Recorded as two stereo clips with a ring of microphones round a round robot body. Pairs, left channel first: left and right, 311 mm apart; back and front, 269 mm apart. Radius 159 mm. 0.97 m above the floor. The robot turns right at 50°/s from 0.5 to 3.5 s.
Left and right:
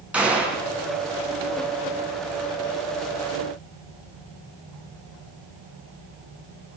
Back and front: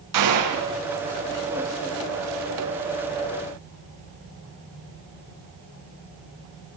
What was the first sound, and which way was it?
A gunshot, 5° right.